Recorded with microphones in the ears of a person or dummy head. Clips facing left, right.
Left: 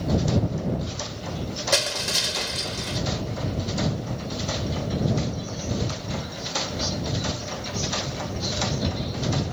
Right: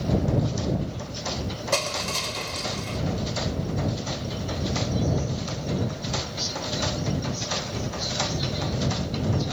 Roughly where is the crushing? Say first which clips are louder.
Even; centre.